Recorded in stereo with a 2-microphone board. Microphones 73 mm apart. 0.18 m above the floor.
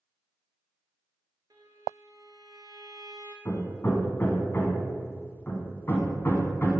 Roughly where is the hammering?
Left.